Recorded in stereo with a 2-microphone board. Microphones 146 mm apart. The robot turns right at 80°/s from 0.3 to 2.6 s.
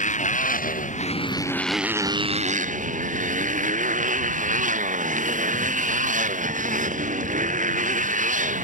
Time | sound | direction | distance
0.0 | a motorcycle | 65° left | ?